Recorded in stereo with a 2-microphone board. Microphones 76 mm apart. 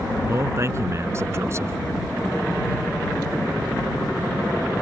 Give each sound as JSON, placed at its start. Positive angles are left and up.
{"t": 0.3, "sound": "a man speaking", "side_deg": -35}